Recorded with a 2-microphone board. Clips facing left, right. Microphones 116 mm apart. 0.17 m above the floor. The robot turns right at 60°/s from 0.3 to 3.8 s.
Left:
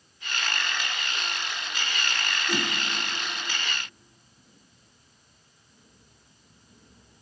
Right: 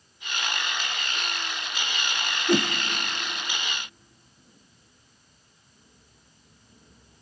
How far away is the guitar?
I don't hear a guitar.